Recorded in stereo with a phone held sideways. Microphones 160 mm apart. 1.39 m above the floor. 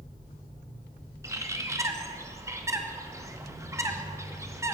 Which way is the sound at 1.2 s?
20° right (ahead or behind).